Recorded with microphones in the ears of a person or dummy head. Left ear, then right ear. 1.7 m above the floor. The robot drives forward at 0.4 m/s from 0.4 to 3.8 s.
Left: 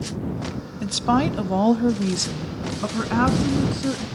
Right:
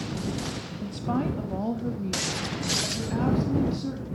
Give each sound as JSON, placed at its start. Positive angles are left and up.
{"t": 0.8, "sound": "a woman speaking", "side_deg": 45, "distance_m": 0.7}